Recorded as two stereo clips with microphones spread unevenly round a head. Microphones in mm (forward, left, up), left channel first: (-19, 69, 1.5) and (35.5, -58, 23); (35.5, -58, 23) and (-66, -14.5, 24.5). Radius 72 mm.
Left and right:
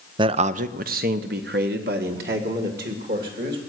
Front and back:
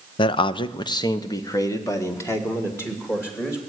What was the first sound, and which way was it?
A man speaking, 15° right.